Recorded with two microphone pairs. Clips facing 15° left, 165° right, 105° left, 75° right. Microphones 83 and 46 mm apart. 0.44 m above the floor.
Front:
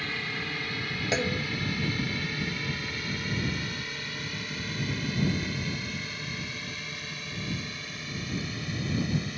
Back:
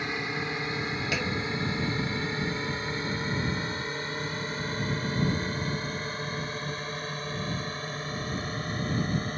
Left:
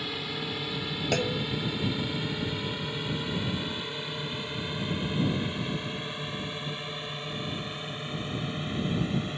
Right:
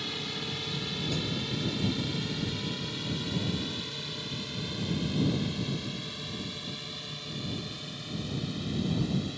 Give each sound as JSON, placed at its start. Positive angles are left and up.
{"t": 0.0, "sound": "a drone", "azimuth_deg": 165}
{"t": 1.1, "sound": "a clunk", "azimuth_deg": 80}